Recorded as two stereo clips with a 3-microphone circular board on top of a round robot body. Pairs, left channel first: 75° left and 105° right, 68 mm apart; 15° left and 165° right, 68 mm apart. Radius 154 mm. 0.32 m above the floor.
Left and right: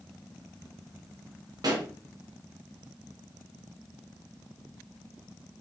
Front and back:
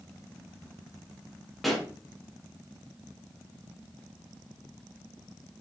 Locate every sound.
1.6 s a pop: 75° right, 1.7 m